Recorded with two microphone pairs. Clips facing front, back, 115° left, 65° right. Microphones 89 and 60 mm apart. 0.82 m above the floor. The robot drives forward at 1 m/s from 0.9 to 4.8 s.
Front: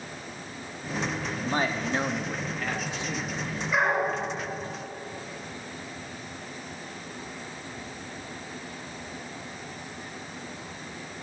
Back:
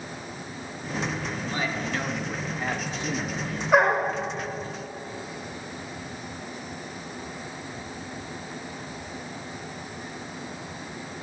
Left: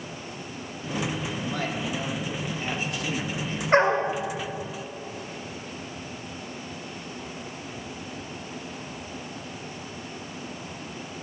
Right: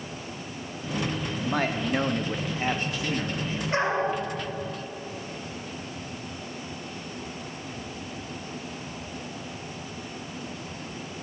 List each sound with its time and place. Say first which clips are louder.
1.4 s a man speaking: front 4 dB, right 6 dB; 35° right, 1.2 m; by 3.6 s 150° right, 1.4 m
3.7 s a dog barking: back 5 dB, left 5 dB; 155° left, 1.3 m; by 4.1 s 160° left, 1.7 m